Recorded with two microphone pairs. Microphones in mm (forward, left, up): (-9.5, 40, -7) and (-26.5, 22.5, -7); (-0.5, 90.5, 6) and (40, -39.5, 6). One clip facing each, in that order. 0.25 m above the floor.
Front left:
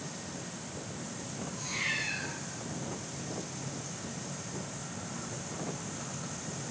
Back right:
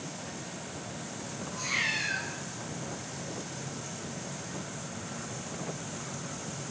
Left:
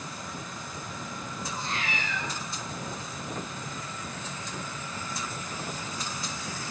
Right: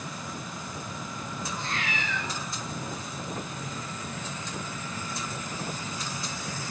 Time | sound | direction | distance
1.5 | a cat meowing | 175° right | 5.5 m